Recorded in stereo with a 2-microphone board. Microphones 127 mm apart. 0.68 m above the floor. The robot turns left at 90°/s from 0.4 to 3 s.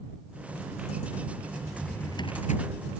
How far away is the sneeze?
I don't hear a sneeze.